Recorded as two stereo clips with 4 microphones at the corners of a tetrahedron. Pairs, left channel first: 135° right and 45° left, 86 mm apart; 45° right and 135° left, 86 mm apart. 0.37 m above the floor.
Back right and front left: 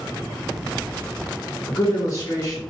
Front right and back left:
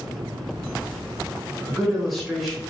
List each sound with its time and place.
1.7 s a man speaking: 135° right, 0.9 m